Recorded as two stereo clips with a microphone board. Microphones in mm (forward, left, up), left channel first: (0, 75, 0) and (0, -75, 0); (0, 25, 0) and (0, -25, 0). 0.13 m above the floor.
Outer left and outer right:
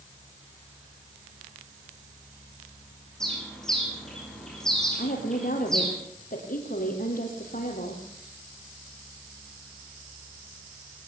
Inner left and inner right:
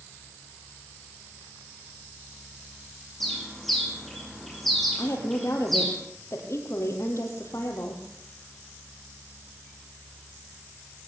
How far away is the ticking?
No ticking in this recording.